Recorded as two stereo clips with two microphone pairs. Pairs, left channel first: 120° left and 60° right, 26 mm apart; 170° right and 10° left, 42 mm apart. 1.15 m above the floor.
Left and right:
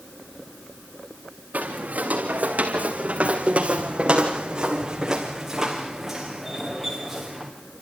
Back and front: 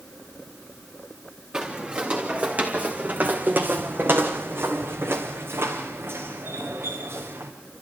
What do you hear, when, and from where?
1.5 s footsteps: 55° right, 3.5 m; by 7.5 s 35° left, 4.5 m